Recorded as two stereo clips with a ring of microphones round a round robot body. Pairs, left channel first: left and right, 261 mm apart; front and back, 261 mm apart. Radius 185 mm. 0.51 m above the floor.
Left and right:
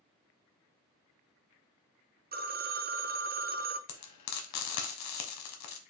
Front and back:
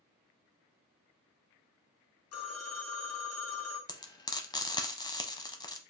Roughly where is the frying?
Left.